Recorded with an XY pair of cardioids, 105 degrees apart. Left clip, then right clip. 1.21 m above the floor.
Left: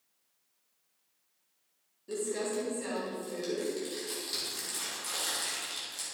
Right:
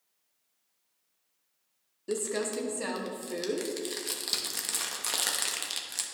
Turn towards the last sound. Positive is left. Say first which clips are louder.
# right 2 dB
turn(degrees=-65)